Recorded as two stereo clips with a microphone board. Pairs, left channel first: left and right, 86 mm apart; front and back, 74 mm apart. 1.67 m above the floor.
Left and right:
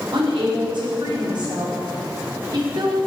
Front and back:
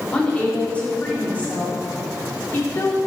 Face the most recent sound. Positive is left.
turn(degrees=-60)